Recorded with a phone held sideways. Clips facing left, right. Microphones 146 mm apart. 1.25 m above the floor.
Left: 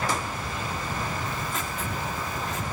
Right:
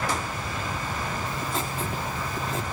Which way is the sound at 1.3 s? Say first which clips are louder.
Right 2 dB; 30° right (ahead or behind).